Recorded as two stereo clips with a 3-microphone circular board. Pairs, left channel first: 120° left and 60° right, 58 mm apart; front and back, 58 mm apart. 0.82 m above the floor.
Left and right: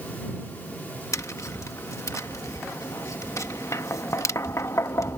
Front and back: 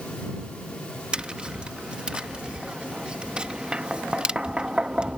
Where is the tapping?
110° left.